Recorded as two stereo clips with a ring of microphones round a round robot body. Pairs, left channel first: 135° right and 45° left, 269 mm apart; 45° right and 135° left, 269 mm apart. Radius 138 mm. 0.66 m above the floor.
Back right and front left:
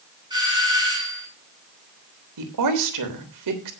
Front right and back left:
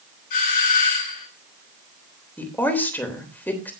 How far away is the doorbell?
About 8.5 m.